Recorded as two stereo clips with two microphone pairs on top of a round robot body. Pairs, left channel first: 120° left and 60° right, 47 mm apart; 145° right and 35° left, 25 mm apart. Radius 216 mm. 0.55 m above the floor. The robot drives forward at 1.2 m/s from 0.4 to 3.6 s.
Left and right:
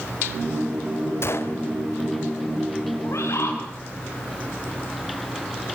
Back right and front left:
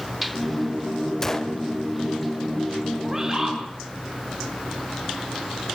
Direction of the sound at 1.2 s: 140° left.